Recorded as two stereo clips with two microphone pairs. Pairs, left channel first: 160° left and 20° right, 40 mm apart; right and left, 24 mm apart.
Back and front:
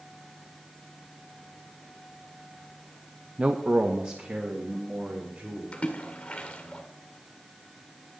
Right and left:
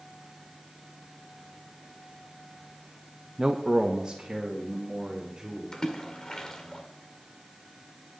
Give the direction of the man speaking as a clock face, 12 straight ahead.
11 o'clock.